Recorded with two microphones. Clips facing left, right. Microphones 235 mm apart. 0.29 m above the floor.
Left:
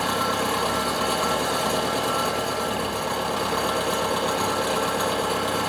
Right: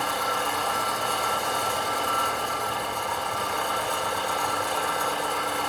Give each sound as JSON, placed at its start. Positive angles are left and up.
{"t": 0.0, "sound": "an engine running", "side_deg": 80, "distance_m": 2.5}